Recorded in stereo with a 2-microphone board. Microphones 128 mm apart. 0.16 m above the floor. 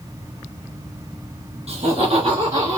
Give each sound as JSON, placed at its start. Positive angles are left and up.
{"t": 1.7, "sound": "laughter", "side_deg": -45, "distance_m": 2.5}